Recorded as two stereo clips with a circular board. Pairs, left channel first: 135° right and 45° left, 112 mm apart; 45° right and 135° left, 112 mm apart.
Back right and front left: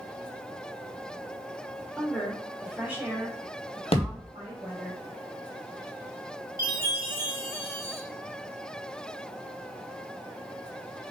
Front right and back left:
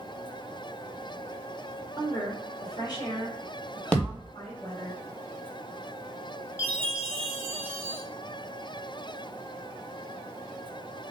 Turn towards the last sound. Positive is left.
turn(degrees=80)